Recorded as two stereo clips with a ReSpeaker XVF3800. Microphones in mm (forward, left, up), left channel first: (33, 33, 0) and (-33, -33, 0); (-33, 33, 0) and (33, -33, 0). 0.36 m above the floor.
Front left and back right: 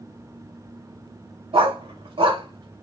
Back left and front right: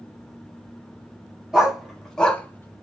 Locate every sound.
1.5 s a dog barking: 130° right, 1.1 m; by 2.8 s 165° right, 0.6 m